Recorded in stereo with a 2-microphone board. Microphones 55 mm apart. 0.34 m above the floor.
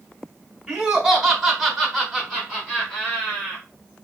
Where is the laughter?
10° right (ahead or behind), 1.4 m; by 3.6 s 15° left (ahead or behind), 1.9 m.